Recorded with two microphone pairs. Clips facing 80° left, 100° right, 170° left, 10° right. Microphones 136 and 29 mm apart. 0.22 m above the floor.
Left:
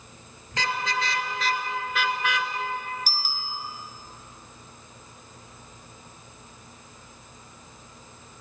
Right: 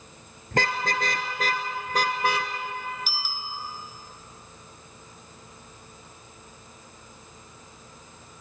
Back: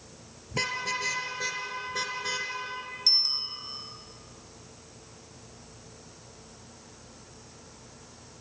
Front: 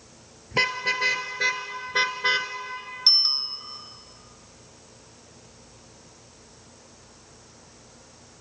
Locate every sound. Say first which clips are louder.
0.5 s a car horn: right 2 dB, front 6 dB; 65° right, 2.5 m; by 2.5 s 50° right, 1.5 m
3.1 s a bicycle bell: left 1 dB, front 5 dB; 35° left, 2 m